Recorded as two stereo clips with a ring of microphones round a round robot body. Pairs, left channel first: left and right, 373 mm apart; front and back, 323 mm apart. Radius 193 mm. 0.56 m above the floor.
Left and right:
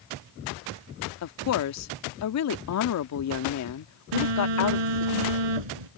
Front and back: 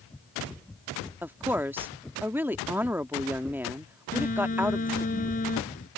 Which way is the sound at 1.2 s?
100° left.